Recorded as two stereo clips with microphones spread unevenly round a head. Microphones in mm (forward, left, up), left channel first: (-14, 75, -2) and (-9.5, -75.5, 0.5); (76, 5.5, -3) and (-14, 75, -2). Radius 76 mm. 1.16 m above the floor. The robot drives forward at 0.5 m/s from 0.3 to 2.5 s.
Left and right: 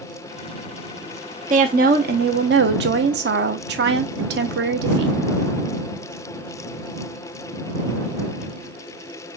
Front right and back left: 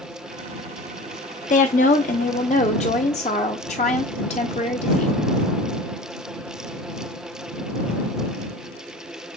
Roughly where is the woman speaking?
Ahead right.